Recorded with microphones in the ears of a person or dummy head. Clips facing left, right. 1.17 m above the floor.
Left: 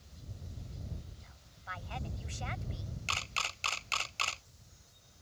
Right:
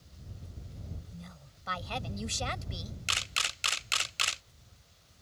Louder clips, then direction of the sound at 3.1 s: Even; 15° right (ahead or behind).